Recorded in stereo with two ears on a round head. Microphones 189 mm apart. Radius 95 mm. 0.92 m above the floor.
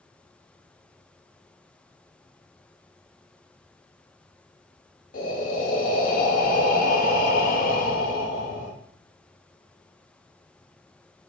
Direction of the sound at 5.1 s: 40° left (ahead or behind).